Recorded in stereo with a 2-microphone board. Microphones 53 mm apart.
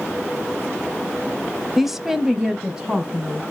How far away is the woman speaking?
About 1.0 m.